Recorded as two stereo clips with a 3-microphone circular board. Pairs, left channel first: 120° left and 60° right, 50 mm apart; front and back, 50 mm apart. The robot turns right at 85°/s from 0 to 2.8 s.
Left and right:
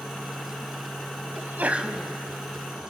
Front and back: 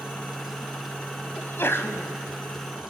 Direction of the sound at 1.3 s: 35° right.